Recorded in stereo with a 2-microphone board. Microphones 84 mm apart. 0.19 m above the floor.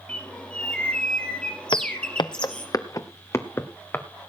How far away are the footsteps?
About 1.1 m.